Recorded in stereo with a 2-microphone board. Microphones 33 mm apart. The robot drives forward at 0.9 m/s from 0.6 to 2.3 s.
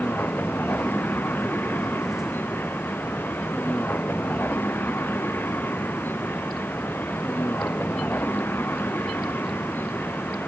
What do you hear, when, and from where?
0.0 s a vehicle: 70° left (ahead or behind); by 10.5 s 85° left